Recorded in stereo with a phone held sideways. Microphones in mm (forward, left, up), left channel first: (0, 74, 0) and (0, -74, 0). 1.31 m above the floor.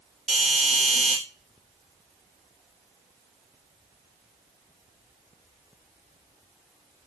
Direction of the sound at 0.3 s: 5° right (ahead or behind).